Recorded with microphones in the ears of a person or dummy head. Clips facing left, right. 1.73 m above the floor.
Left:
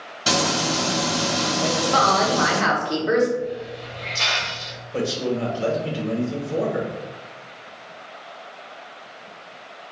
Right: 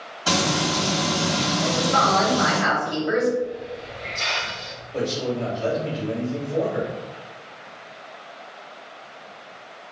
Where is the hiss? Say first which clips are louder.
Even; 60° left (ahead or behind), 0.9 m.